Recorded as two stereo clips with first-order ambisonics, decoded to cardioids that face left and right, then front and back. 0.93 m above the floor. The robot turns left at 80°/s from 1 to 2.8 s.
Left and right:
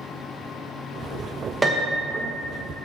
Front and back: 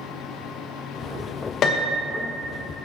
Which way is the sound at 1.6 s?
20° right.